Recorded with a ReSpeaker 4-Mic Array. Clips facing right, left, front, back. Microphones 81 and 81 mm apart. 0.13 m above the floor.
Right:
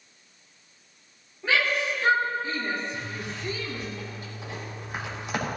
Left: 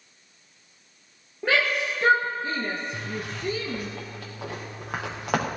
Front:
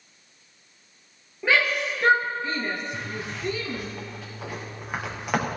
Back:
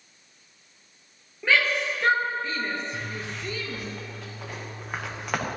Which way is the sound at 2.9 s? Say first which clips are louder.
Left 2 dB, front 1 dB; 85° left.